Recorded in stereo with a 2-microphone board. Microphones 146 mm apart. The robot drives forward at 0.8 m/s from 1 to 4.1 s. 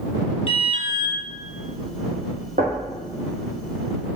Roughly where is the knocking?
Right.